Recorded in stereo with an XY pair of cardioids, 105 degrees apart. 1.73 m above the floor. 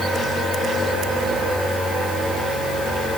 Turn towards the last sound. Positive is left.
No sound to turn to.